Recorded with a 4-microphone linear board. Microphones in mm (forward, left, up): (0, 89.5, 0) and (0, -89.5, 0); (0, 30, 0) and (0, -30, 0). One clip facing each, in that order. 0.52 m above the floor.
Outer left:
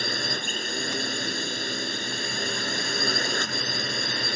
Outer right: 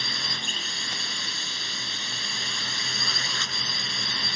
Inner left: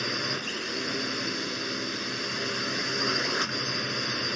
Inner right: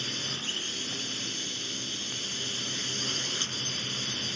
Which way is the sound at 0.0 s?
50° left (ahead or behind).